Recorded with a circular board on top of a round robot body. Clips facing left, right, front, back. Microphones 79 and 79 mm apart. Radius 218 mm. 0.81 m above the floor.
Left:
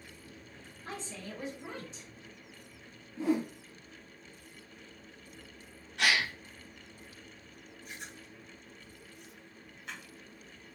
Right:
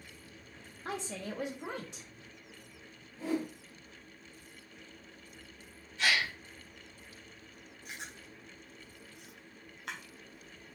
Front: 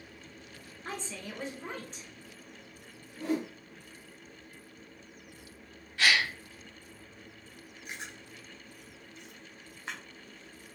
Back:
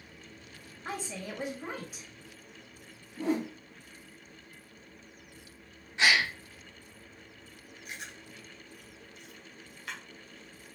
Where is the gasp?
110° left, 1.2 m.